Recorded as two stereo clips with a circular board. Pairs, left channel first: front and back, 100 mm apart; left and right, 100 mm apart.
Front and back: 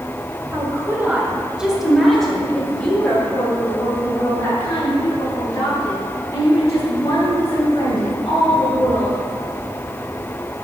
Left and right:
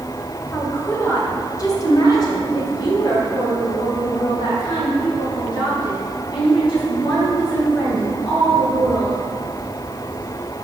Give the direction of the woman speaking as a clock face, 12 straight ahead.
7 o'clock.